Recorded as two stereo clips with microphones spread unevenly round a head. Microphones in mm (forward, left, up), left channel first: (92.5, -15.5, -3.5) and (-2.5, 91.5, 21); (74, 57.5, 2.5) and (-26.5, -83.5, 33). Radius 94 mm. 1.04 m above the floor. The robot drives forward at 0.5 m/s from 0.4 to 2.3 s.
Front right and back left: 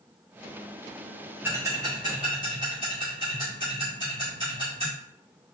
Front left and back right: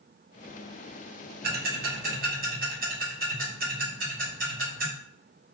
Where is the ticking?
155° right, 0.5 m; by 4.9 s 165° right, 0.9 m.